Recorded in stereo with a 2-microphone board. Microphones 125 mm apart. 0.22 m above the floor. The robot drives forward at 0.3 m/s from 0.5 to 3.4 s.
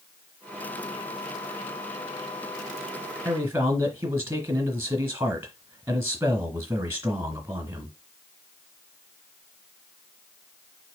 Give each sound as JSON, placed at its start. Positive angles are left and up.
{"t": 3.2, "sound": "a man speaking", "side_deg": -20, "distance_m": 1.0}